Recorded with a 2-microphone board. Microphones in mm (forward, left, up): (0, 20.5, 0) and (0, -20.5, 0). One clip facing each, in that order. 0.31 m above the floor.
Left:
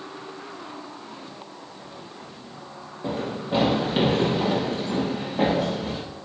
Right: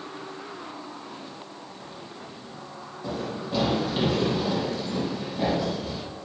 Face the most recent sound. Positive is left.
turn(degrees=50)  # may be behind; listen again after turning